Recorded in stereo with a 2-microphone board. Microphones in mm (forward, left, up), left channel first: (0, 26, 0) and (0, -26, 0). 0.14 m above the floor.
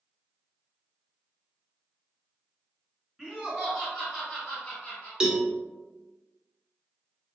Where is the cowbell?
15° right (ahead or behind), 0.6 m.